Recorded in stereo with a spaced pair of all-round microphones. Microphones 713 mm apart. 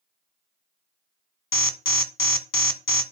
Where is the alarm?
30° left (ahead or behind), 0.7 m.